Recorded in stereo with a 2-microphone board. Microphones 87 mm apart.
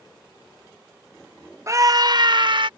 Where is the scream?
35° right (ahead or behind); by 2.7 s 65° right (ahead or behind).